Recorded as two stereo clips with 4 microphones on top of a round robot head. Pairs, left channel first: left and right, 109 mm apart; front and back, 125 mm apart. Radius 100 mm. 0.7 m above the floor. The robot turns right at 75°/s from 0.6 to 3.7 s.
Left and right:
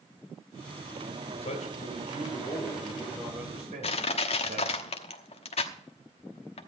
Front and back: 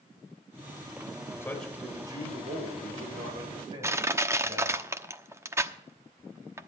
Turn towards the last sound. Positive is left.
turn(degrees=115)